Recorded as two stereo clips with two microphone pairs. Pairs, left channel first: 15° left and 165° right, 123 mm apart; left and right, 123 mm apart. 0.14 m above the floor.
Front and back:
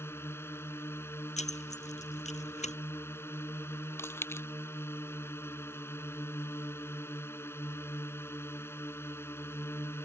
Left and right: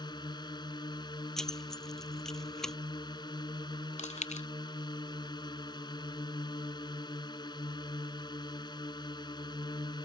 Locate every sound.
0.0 s a drone: 70° left
1.4 s keys jangling: 5° left
4.0 s chewing: 80° left